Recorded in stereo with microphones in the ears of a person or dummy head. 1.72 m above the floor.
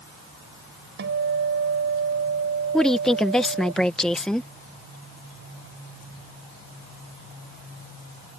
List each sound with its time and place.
1.0 s a guitar: 60° right (ahead or behind)
2.7 s a woman speaking: 5° left (ahead or behind)